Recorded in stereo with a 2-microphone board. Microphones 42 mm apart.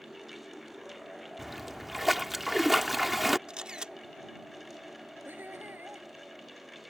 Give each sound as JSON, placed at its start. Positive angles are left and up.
{"t": 1.4, "sound": "a splash", "side_deg": -5}
{"t": 3.5, "sound": "a camera shutter", "side_deg": -20}
{"t": 5.2, "sound": "laughter", "side_deg": -50}